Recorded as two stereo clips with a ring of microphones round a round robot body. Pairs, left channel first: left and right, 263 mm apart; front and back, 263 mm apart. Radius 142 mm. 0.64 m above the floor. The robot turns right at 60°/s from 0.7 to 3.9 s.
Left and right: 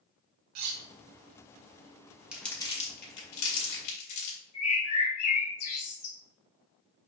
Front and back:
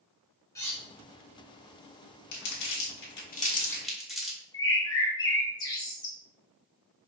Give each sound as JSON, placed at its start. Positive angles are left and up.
{"t": 0.6, "sound": "cutlery clinking", "azimuth_deg": -80, "distance_m": 0.7}
{"t": 2.3, "sound": "crumpling", "azimuth_deg": -5, "distance_m": 1.8}
{"t": 4.5, "sound": "a bird", "azimuth_deg": 75, "distance_m": 2.0}